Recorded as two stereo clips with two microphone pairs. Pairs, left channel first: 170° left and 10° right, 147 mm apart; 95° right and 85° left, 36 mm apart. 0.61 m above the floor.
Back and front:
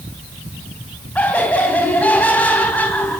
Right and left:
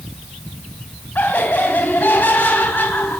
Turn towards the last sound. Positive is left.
turn(degrees=-110)